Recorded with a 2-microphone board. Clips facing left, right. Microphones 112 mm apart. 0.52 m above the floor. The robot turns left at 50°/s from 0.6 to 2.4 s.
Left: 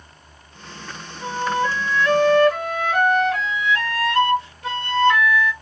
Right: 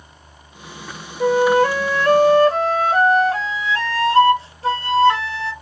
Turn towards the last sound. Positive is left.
turn(degrees=-150)